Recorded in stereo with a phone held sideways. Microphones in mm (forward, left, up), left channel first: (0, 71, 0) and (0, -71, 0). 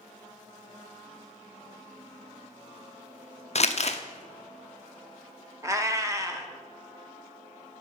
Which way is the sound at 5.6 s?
20° right (ahead or behind).